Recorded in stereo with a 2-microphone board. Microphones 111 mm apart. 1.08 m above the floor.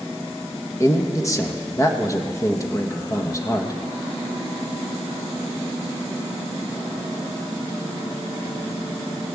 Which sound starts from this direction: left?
A man speaking, at 0.8 s.